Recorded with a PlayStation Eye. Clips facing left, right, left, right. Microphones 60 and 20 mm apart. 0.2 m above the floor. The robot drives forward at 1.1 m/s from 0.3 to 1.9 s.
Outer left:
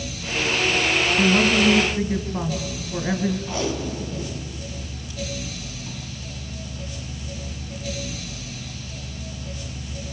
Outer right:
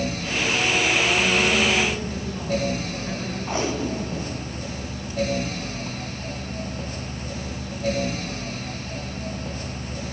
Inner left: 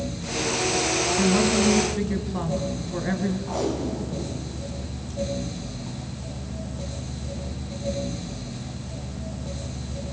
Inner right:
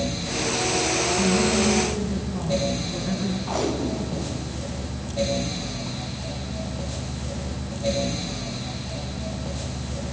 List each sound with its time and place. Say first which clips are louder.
1.2 s a woman speaking: outer left 2 dB, inner left 1 dB; 50° left (ahead or behind), 3 m; by 3.4 s 45° left (ahead or behind), 3.5 m
3.5 s tape being pulled: outer right 1 dB, inner right 1 dB; 30° right (ahead or behind), 2 m